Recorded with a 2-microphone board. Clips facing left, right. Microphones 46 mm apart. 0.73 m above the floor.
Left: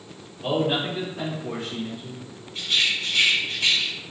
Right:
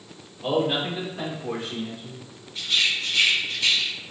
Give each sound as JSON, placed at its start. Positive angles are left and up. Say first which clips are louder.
{"t": 0.4, "sound": "a man speaking", "louder": "even", "side_deg": 20, "distance_m": 1.3}
{"t": 2.5, "sound": "a rattle", "louder": "even", "side_deg": 40, "distance_m": 1.5}